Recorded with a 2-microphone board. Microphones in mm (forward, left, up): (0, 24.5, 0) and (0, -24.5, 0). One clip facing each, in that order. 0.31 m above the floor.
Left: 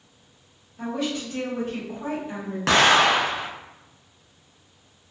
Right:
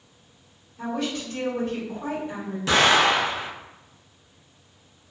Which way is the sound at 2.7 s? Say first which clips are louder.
Left 1 dB; 65° left (ahead or behind).